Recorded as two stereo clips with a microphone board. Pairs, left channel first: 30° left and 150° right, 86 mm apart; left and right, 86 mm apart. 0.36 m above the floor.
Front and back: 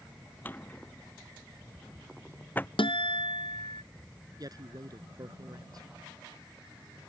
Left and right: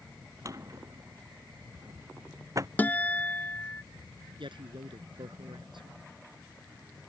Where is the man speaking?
110° right.